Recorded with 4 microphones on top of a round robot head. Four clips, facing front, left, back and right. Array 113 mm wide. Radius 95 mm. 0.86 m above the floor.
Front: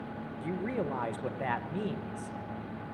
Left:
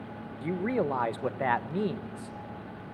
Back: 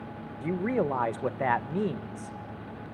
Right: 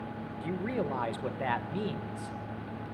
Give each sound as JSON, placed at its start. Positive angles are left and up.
{"t": 0.4, "sound": "a man speaking", "azimuth_deg": 140, "distance_m": 1.1}